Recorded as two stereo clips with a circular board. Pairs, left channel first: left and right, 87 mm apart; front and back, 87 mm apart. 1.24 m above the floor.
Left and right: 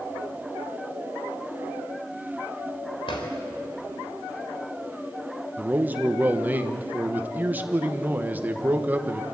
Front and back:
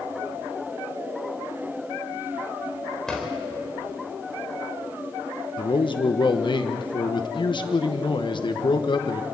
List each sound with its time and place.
3.1 s a drawer: 85° left, 3.5 m
5.6 s a man speaking: 20° right, 1.1 m